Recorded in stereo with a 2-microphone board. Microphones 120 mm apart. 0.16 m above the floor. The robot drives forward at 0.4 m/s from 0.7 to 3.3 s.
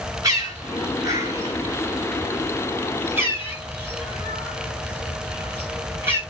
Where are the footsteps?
No footsteps in this recording.